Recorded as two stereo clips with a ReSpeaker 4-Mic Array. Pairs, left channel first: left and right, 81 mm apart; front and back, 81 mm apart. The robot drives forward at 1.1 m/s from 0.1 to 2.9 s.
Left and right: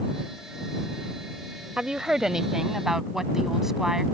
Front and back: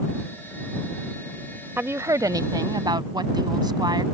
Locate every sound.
1.8 s a woman speaking: 160° right; by 4.0 s 175° right